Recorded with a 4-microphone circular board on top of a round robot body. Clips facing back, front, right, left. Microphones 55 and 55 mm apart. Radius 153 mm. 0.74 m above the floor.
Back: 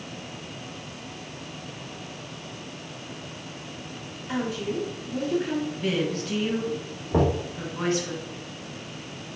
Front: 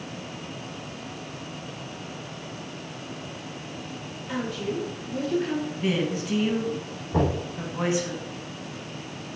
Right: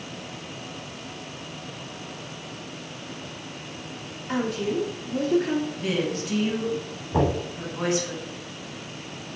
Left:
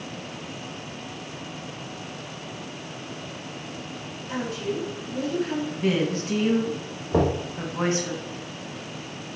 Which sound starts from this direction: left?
A woman speaking, at 5.7 s.